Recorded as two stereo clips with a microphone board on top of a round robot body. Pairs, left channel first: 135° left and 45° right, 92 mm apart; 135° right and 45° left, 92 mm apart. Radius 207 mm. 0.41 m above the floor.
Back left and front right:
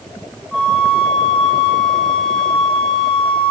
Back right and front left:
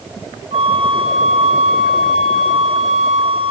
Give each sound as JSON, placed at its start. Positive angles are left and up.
{"t": 0.5, "sound": "a flute", "azimuth_deg": 55, "distance_m": 1.5}